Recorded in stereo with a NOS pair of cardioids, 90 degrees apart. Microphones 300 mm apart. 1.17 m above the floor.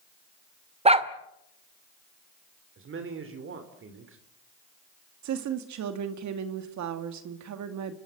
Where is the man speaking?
45° right, 3.5 m.